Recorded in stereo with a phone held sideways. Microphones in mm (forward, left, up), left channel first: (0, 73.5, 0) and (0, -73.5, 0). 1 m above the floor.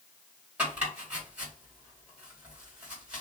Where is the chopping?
10° right (ahead or behind), 2 m.